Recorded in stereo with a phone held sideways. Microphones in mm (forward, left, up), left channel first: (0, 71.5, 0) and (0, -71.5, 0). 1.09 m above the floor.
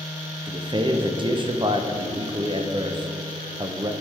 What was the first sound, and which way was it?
A man speaking, 35° right (ahead or behind).